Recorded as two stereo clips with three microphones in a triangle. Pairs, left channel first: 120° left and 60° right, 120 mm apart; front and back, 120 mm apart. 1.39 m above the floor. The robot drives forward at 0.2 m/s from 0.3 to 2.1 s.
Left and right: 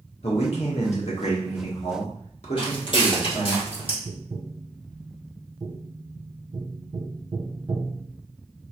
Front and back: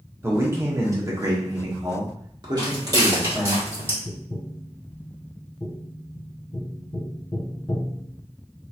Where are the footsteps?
145° left, 2.0 m; by 4.0 s 120° left, 2.5 m.